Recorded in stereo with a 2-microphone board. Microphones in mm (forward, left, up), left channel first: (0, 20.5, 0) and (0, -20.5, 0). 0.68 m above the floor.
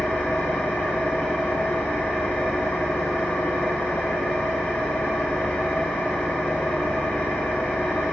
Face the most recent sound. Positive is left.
turn(degrees=65)  # may be behind; listen again after turning